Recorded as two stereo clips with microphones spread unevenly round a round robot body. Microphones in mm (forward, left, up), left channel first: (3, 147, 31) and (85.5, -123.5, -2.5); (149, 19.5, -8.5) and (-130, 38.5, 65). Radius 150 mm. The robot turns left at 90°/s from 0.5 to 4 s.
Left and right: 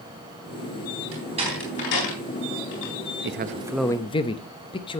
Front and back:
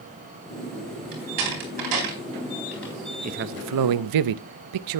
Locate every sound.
1.1 s a door slam: 120° right, 3.5 m; by 2.9 s 75° left, 3.5 m
3.2 s a man speaking: 110° right, 0.6 m; by 5.0 s 175° right, 0.6 m